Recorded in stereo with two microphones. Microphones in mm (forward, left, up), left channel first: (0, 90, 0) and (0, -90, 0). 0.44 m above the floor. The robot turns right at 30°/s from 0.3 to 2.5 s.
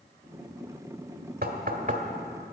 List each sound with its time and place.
1.4 s knocking: 55° right (ahead or behind), 1.3 m; by 2.0 s 45° right (ahead or behind), 1.3 m